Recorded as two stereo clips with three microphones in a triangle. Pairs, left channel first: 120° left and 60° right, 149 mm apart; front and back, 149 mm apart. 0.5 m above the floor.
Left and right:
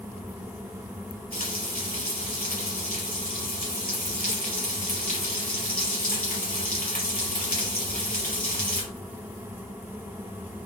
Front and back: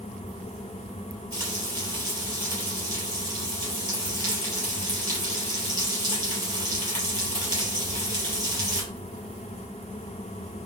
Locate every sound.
1.3 s frying: 120° left, 4.5 m